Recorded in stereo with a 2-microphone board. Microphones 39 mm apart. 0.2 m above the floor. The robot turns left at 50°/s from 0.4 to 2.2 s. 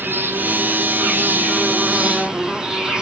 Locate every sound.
0.0 s an insect: 70° right, 1.5 m; by 3.0 s 160° right, 1.5 m